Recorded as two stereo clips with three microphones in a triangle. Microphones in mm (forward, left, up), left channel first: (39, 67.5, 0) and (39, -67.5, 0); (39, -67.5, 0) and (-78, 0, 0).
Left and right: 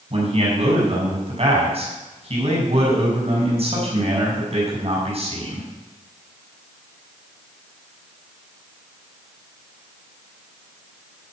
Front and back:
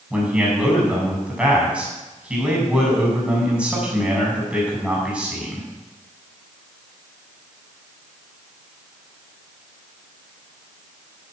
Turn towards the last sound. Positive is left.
turn(degrees=-130)